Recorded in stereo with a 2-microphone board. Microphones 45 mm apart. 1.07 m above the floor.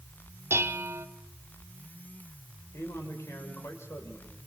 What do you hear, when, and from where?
0.5 s dishes clattering: 70° right (ahead or behind), 1.5 m
2.7 s a man speaking: 85° left, 5 m